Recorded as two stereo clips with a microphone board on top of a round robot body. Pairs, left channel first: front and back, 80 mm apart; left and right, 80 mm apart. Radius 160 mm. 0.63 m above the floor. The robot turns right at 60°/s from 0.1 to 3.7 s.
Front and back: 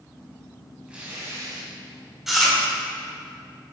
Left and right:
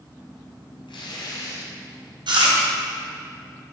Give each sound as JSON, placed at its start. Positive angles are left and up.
{"t": 0.9, "sound": "tearing paper", "azimuth_deg": 100, "distance_m": 1.0}
{"t": 2.3, "sound": "chewing", "azimuth_deg": -95, "distance_m": 2.0}